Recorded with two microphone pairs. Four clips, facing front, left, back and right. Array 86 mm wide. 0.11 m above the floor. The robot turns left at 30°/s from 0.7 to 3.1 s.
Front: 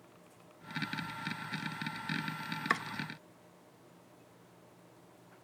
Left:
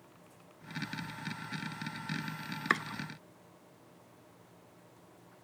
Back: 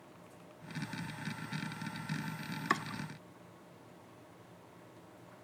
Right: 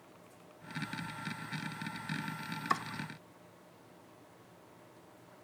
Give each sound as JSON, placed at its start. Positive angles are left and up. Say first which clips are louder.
{"t": 2.7, "sound": "chopping", "louder": "left 2 dB, even", "azimuth_deg": 80, "distance_m": 0.6}